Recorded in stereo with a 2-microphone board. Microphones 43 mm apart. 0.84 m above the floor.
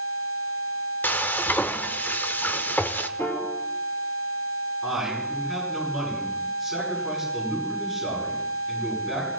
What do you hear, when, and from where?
1.0 s frying: 45° left (ahead or behind), 0.6 m
3.2 s a piano: 75° left (ahead or behind), 2.5 m
4.8 s a man speaking: centre (ahead or behind), 9.5 m